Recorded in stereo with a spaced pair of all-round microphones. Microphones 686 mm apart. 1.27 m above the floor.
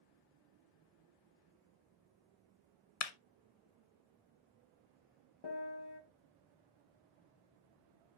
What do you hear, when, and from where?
3.0 s a clap: 60° left (ahead or behind), 0.8 m
5.4 s a piano: 35° left (ahead or behind), 1.0 m